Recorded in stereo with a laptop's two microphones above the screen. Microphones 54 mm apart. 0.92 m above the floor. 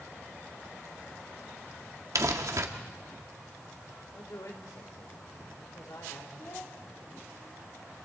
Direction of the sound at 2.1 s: 75° right (ahead or behind).